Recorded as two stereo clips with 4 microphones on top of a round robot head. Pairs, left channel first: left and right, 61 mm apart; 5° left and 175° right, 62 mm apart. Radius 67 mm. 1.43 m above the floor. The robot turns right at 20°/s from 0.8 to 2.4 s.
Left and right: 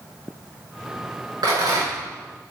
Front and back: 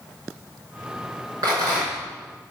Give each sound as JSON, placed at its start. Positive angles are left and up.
{"t": 1.4, "sound": "a rattle", "azimuth_deg": -125, "distance_m": 6.0}